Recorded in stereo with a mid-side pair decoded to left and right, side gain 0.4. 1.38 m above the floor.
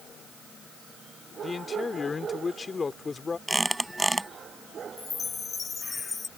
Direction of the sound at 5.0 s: 40° left.